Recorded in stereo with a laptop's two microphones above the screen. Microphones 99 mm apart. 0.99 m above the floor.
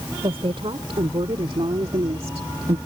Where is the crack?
I don't hear a crack.